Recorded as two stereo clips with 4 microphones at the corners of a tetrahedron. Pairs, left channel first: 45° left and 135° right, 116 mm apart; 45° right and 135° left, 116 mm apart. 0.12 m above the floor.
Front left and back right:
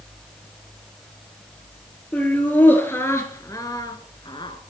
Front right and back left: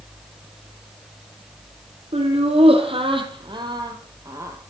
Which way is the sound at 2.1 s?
120° left.